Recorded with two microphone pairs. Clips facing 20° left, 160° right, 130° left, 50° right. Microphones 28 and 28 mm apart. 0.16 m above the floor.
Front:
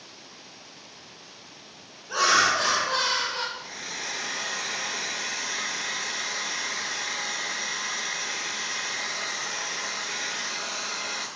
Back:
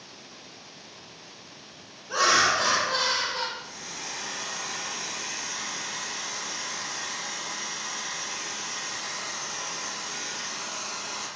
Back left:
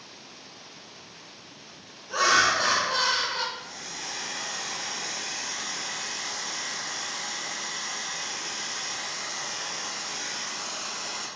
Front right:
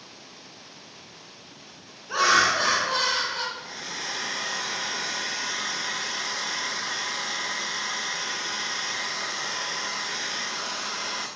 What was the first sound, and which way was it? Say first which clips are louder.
Laughter: even, front right 1 dB; 70° right.